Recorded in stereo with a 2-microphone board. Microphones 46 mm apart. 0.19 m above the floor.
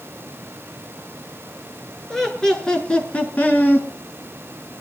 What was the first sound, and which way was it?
Laughter, 10° left (ahead or behind).